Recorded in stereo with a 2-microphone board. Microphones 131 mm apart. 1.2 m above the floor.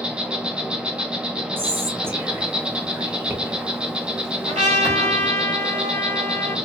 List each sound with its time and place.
0.0 s an insect: 5° right (ahead or behind), 0.7 m
1.6 s whispering: 15° right (ahead or behind), 1.2 m
4.5 s a trumpet: 70° right (ahead or behind), 2.5 m